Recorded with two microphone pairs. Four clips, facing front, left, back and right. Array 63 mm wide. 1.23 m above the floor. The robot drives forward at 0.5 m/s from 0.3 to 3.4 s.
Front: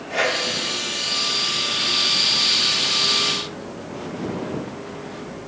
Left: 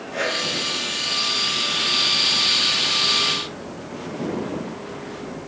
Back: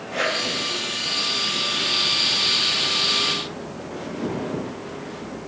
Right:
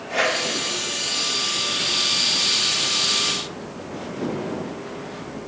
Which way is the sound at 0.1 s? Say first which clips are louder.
Right 3 dB, front 2 dB; 50° right.